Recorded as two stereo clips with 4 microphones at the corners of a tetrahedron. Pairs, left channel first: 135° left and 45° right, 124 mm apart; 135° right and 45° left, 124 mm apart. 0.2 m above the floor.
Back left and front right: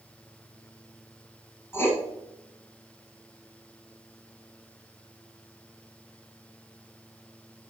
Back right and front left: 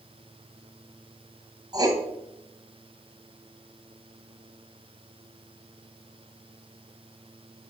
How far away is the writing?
About 1.3 m.